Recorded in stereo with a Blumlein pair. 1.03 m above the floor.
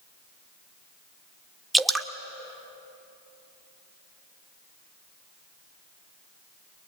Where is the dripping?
5° right, 0.9 m.